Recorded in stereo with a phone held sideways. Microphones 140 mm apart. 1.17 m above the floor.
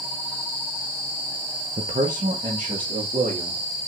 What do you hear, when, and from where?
1.8 s a man speaking: 55° right (ahead or behind), 0.7 m; by 3.6 s 85° right, 2.5 m